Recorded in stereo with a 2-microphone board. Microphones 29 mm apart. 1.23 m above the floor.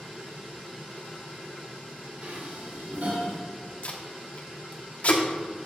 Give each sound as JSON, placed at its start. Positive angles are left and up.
{"t": 2.2, "sound": "dishes clattering", "side_deg": -55, "distance_m": 2.5}
{"t": 3.8, "sound": "tape being pulled", "side_deg": 55, "distance_m": 1.0}